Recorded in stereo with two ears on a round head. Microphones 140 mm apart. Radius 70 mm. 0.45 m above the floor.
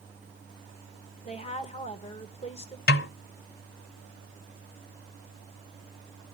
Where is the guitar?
No guitar in this recording.